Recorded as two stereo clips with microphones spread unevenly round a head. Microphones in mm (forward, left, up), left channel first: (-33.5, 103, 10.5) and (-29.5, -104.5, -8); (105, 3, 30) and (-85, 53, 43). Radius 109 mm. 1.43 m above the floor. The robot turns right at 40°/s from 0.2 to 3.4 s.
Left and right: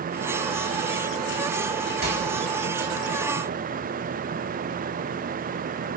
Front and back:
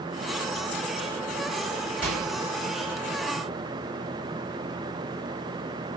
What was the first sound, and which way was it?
A microwave, 110° right.